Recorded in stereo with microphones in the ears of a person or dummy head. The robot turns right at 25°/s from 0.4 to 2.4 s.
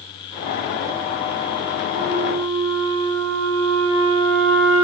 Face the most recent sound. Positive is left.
turn(degrees=-75)  # may be behind; listen again after turning